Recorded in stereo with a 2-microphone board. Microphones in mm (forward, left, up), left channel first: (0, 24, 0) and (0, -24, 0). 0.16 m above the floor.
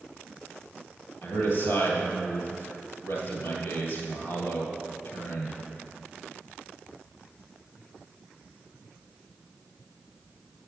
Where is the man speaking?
60° left (ahead or behind), 3 m.